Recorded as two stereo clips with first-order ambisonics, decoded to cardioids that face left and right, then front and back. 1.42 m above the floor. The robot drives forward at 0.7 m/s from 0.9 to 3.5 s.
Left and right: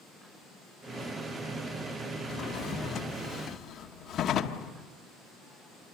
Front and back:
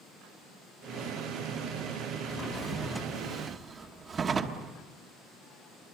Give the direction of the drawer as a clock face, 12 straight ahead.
10 o'clock.